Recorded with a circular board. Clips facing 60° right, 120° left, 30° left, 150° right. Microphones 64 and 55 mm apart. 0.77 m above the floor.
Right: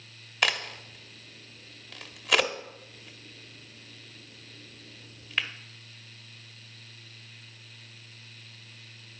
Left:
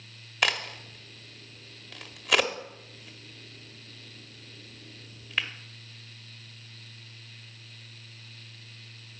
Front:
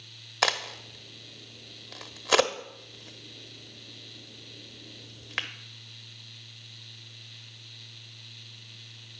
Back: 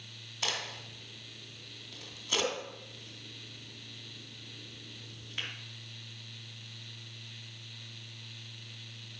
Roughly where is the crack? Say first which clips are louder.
Even, front 9 dB; ahead left.